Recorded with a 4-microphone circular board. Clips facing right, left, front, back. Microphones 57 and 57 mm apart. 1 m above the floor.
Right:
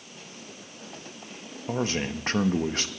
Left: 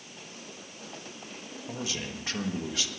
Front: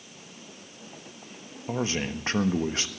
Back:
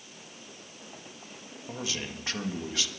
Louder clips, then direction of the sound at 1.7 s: Right 8 dB, front 7 dB; 50° right.